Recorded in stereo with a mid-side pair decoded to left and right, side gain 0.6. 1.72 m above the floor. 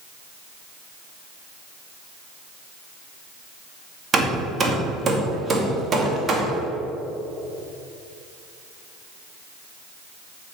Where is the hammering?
35° right, 2.5 m.